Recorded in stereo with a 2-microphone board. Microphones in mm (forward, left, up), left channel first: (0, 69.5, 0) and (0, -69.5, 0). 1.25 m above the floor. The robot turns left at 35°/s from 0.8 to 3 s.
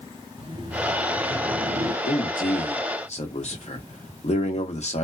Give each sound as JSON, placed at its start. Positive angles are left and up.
{"t": 0.4, "sound": "laughter", "azimuth_deg": -35, "distance_m": 1.3}
{"t": 2.0, "sound": "a man speaking", "azimuth_deg": 85, "distance_m": 1.0}